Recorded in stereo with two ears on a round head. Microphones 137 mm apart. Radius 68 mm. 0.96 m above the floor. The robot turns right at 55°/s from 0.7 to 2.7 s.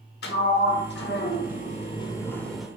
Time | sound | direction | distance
0.2 | a sliding door | 75° left | 1.5 m